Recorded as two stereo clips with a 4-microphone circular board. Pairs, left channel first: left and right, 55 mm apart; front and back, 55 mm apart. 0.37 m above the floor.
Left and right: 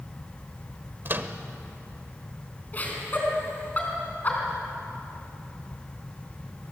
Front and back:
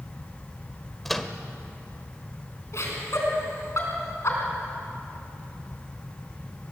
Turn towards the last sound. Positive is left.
turn(degrees=35)